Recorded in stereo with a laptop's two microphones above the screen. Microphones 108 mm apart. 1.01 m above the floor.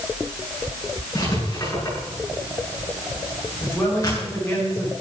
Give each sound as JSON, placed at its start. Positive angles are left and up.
{"t": 1.1, "sound": "writing", "side_deg": 30, "distance_m": 7.5}
{"t": 3.6, "sound": "a man speaking", "side_deg": 10, "distance_m": 5.5}